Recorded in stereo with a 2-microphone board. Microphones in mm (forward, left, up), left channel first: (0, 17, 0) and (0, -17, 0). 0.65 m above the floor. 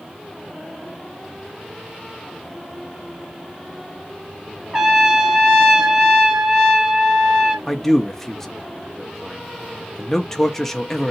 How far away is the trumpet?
About 1.8 m.